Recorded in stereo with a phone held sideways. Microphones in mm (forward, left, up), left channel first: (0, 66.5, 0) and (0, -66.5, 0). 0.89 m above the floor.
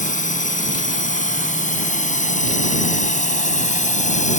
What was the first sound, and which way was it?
A drone, 75° left (ahead or behind).